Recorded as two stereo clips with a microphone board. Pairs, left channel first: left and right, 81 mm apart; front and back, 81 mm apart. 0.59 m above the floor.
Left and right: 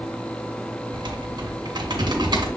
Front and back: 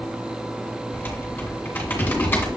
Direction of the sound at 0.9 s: 65° right.